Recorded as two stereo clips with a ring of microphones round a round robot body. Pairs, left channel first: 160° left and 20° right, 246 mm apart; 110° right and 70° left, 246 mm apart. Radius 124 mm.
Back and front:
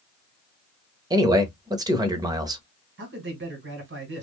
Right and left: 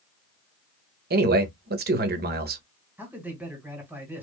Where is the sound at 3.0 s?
15° right, 1.8 m.